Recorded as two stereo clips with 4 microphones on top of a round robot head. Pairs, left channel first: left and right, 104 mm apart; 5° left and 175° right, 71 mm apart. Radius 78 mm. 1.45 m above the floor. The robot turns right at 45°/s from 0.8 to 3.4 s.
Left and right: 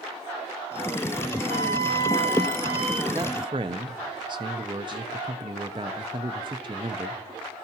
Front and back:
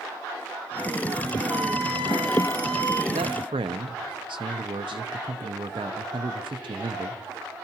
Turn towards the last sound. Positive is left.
turn(degrees=-145)